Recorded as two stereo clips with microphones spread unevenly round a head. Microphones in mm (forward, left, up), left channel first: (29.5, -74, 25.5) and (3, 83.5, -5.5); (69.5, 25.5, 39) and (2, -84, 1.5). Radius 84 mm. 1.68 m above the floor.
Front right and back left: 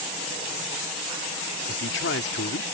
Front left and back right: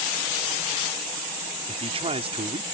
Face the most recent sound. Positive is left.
turn(degrees=-75)